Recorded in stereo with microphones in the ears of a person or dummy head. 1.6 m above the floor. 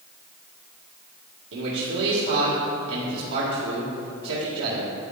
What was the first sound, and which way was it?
A man speaking, 75° right (ahead or behind).